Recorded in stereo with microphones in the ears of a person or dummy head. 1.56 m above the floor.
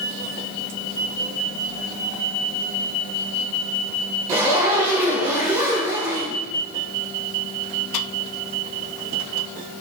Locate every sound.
4.3 s a zipper: 15° right (ahead or behind), 3 m